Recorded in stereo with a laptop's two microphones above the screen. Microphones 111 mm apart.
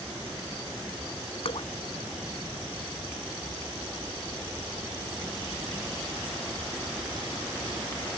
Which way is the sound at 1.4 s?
60° left (ahead or behind).